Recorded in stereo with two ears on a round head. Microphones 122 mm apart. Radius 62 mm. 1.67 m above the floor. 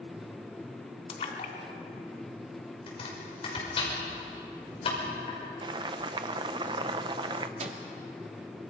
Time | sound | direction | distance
1.1 | a splash | 45° left (ahead or behind) | 2.5 m
2.9 | chopping | 45° left (ahead or behind) | 5.5 m
5.6 | boiling | 35° right (ahead or behind) | 0.8 m
7.6 | a microwave | 55° right (ahead or behind) | 2.5 m